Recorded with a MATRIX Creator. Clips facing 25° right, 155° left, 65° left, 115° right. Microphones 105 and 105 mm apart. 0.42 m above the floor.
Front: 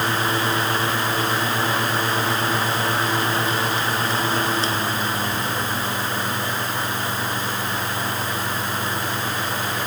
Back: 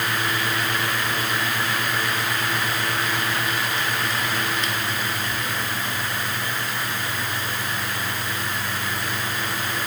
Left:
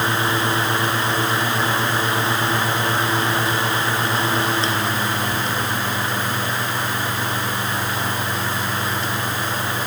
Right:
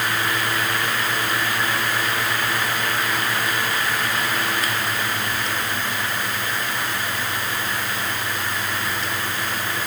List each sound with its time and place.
Only background noise.